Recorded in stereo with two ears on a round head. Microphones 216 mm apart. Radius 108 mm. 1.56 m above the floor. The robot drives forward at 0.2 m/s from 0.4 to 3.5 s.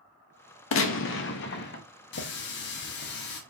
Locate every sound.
0.7 s a gunshot: 55° left (ahead or behind), 0.6 m; by 1.8 s 45° left (ahead or behind), 0.7 m
2.1 s a running tap: 45° left (ahead or behind), 0.7 m